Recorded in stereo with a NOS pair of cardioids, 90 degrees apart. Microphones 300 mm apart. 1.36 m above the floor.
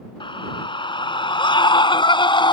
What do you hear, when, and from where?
0.2 s a scream: 15° left